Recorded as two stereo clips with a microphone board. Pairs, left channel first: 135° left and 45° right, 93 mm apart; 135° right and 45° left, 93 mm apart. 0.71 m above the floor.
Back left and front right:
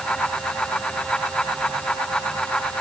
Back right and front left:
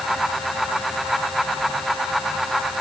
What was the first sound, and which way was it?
Only background noise.